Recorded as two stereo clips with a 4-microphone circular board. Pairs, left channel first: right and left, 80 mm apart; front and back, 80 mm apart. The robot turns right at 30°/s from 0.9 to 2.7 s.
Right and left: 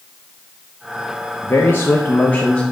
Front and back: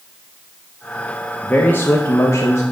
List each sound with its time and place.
1.4 s a man speaking: 55° right, 1.1 m; by 2.6 s 20° right, 1.1 m